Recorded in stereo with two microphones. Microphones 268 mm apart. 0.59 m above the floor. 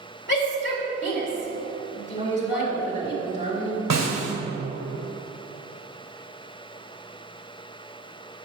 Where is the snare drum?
85° right, 1.4 m.